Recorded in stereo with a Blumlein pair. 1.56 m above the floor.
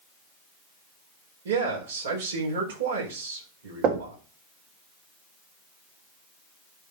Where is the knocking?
35° right, 3 m.